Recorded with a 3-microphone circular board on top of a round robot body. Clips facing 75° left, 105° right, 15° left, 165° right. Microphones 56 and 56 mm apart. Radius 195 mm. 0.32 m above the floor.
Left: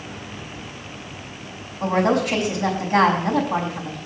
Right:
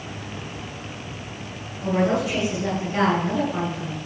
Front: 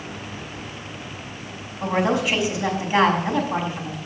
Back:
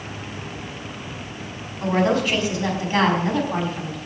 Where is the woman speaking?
95° left, 5 m.